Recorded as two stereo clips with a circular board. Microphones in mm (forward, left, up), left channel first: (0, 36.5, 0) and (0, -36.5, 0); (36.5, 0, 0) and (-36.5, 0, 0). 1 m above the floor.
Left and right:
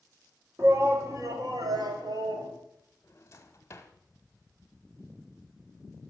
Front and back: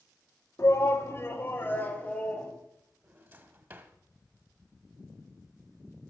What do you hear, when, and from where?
0.6 s a shout: 45° right, 1.7 m; by 2.5 s 75° right, 2.5 m
3.0 s a drawer: 130° left, 1.0 m